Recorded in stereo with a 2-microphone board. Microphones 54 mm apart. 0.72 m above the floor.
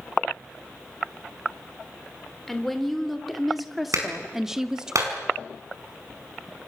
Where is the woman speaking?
5° left (ahead or behind), 3 m; by 4.9 s 15° right (ahead or behind), 1.5 m.